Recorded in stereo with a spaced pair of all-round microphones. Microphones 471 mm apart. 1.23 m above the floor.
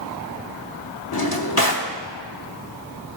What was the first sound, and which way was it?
A drawer, 50° left (ahead or behind).